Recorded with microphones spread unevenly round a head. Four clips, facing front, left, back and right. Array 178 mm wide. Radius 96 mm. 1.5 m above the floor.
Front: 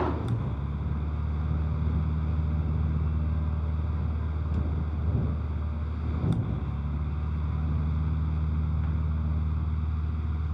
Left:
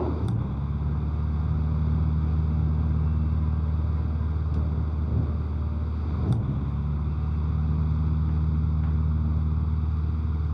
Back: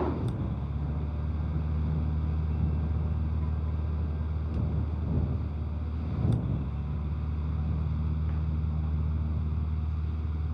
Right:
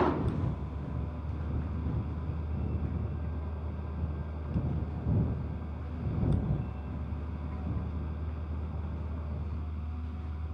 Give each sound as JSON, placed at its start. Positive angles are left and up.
{"t": 0.0, "sound": "a fan", "azimuth_deg": 85}